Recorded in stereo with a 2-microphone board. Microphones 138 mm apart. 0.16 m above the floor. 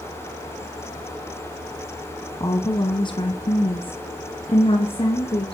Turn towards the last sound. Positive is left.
turn(degrees=45)  # may be behind; listen again after turning